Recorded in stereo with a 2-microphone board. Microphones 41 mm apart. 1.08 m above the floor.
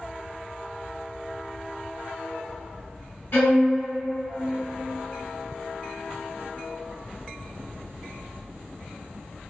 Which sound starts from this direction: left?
A violin, at 3.3 s.